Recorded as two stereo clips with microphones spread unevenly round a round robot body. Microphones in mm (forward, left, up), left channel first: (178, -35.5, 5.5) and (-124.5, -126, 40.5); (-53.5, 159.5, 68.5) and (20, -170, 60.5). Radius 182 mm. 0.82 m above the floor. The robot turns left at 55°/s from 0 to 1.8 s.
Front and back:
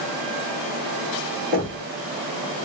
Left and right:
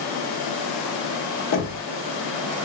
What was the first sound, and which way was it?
Knocking, 135° left.